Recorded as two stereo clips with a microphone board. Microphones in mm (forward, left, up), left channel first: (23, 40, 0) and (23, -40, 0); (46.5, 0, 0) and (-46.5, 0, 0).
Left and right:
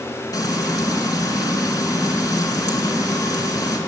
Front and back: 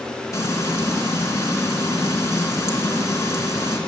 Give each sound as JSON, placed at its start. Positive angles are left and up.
{"t": 0.3, "sound": "frying", "azimuth_deg": 55, "distance_m": 3.0}